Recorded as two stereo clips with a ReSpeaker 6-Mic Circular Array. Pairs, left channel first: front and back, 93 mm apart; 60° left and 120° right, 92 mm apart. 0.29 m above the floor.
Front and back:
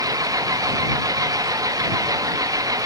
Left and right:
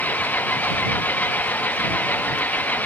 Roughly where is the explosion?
No explosion in this recording.